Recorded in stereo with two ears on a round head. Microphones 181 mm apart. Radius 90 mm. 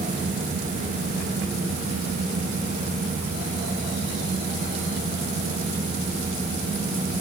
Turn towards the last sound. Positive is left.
No sound to turn to.